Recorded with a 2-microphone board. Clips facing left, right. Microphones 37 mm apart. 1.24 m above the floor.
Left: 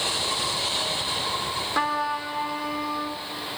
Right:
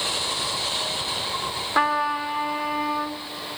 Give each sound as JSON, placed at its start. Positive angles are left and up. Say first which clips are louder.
{"t": 1.8, "sound": "a trumpet", "louder": "right 5 dB", "side_deg": -20, "distance_m": 1.0}